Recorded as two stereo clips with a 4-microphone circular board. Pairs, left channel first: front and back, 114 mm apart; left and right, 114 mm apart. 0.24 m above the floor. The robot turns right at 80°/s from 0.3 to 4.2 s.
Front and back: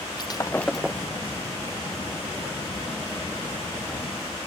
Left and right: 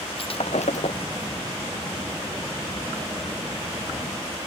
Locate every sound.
0.2 s breaking glass: 55° left; by 1.1 s 115° left